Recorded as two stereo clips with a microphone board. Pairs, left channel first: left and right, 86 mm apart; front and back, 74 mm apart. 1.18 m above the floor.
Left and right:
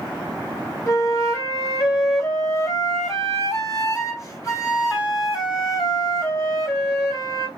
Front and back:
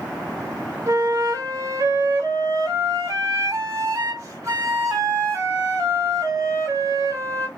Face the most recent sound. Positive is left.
turn(degrees=135)